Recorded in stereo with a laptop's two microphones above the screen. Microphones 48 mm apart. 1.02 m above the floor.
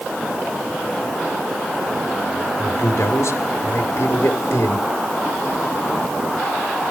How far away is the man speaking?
About 3 m.